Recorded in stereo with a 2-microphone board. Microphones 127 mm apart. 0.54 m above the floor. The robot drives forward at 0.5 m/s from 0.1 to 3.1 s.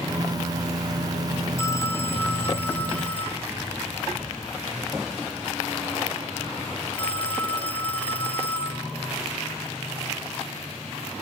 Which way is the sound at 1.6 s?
20° left (ahead or behind).